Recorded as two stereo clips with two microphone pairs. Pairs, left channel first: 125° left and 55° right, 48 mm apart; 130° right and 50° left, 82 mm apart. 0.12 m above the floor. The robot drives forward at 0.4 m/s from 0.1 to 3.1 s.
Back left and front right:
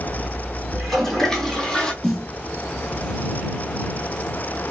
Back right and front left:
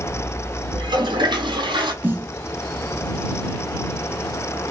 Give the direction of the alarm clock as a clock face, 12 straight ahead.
No alarm clock in this recording.